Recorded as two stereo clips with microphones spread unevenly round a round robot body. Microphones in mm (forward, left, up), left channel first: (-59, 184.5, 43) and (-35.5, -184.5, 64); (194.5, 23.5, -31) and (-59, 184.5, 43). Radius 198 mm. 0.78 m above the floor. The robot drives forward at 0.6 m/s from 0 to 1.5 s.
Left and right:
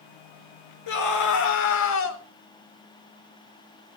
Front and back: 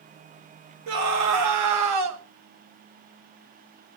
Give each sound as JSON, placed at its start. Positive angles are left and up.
{"t": 0.9, "sound": "a scream", "azimuth_deg": 130, "distance_m": 3.0}